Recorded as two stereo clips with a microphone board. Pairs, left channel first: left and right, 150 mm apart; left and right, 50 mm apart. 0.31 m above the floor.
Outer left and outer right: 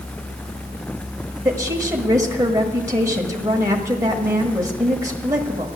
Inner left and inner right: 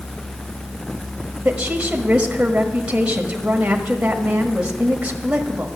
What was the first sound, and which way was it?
A woman speaking, 20° right (ahead or behind).